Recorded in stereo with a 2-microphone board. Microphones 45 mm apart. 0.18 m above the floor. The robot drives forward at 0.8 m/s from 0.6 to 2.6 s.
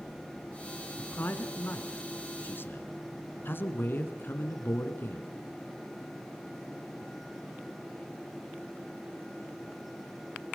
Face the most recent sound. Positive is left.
turn(degrees=50)  # may be behind; listen again after turning